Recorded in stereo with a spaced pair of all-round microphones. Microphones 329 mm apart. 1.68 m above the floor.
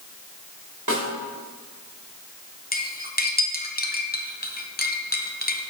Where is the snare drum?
65° right (ahead or behind), 2.5 m.